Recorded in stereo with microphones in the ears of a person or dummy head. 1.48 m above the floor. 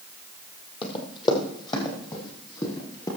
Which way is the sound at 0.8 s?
25° left (ahead or behind).